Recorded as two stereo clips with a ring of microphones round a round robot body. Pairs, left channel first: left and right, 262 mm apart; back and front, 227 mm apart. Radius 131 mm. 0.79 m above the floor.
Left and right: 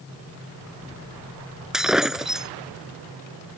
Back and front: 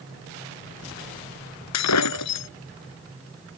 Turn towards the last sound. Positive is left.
turn(degrees=180)